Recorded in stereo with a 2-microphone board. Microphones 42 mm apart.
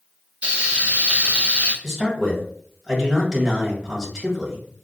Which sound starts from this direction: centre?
A man speaking, at 1.8 s.